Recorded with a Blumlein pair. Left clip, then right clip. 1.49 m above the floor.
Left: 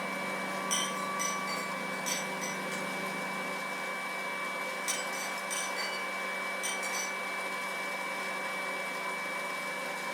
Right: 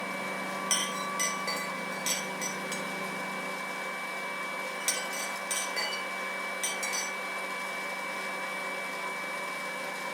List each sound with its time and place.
0.7 s a clink: 20° right, 3.5 m